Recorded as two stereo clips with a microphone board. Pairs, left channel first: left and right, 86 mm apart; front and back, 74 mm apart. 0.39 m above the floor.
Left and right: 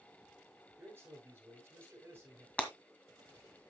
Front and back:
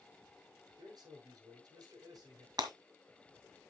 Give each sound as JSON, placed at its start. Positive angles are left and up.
{"t": 0.8, "sound": "a man speaking", "azimuth_deg": -155, "distance_m": 8.5}
{"t": 2.6, "sound": "breaking glass", "azimuth_deg": 165, "distance_m": 1.8}